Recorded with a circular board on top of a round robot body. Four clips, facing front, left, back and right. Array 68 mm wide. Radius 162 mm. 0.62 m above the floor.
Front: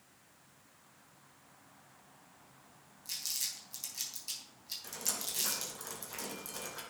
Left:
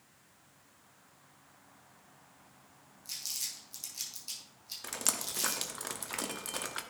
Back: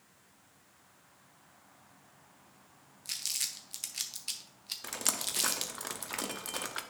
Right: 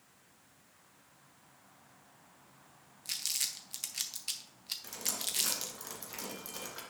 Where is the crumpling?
130° right, 0.8 m.